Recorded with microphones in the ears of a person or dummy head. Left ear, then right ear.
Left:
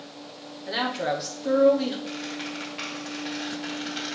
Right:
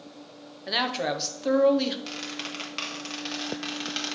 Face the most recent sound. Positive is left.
turn(degrees=-35)  # may be behind; listen again after turning